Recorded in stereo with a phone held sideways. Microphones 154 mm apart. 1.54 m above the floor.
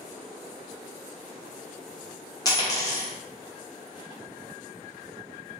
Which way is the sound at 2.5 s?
25° left (ahead or behind).